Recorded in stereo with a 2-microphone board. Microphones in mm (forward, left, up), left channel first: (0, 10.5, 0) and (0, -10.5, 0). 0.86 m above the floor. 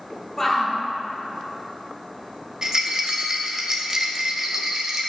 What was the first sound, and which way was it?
A shout, 10° left (ahead or behind).